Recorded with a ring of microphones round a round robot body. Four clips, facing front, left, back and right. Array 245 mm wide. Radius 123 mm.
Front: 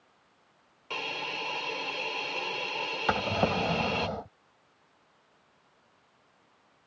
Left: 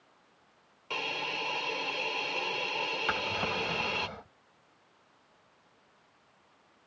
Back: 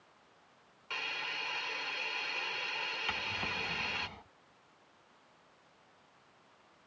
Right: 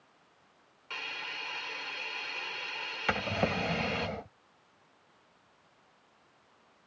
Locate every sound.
0.9 s a hiss: 45° left
3.1 s a drawer: 25° right